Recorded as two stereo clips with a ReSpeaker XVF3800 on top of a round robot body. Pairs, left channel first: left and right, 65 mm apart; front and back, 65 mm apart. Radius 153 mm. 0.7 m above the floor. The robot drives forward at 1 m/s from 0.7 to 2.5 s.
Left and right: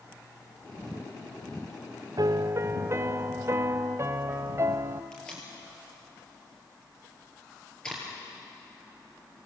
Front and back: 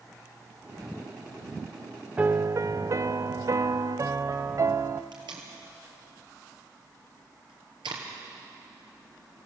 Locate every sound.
2.2 s a piano: 105° right, 0.5 m; by 5.0 s 140° right, 0.7 m
5.1 s tape being pulled: 170° left, 2.5 m